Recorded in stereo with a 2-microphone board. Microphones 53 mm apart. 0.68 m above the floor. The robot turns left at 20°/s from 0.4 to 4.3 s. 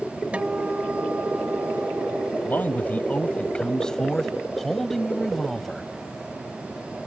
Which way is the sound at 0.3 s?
25° right.